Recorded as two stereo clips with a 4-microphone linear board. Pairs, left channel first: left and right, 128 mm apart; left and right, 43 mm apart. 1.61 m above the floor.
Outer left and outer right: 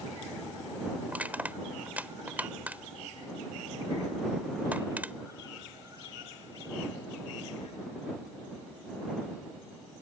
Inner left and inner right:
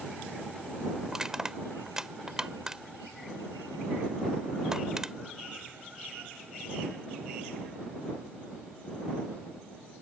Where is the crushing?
15° right (ahead or behind).